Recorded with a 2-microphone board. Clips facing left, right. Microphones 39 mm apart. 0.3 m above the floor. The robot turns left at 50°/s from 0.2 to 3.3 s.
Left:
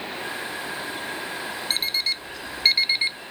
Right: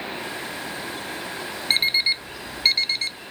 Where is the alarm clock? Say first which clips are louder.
Right 6 dB; 40° right (ahead or behind); by 3.2 s 30° left (ahead or behind).